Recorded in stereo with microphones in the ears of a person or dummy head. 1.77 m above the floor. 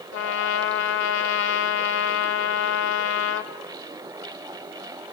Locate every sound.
0.1 s a trumpet: 65° left (ahead or behind), 0.7 m